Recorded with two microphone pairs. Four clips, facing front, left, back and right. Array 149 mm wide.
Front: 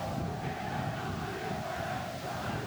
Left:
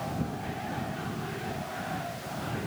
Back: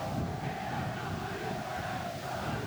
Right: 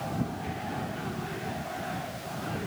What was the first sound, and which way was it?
Only background noise.